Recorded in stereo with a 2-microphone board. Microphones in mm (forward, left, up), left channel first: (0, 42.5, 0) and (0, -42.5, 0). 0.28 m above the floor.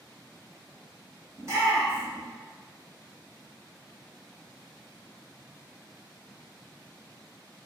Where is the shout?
40° right (ahead or behind), 1.5 m.